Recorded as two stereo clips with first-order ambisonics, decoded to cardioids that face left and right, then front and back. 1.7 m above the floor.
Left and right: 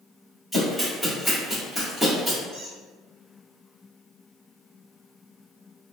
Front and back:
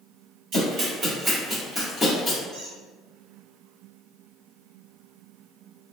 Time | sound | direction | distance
0.5 | running footsteps | 170° right | 2.0 m
2.5 | a squeak | 120° right | 1.1 m